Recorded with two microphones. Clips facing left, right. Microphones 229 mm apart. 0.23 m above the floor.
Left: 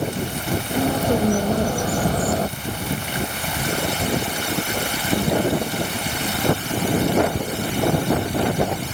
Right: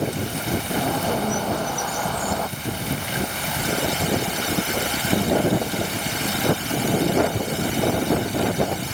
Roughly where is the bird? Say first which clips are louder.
Left 7 dB; left.